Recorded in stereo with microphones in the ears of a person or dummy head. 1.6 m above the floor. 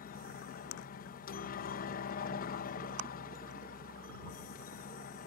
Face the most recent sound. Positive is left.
turn(degrees=50)  # may be behind; listen again after turning